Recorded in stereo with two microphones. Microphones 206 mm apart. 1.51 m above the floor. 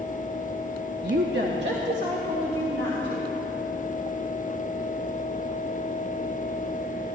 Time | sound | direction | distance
1.0 | a woman speaking | 50° right (ahead or behind) | 0.7 m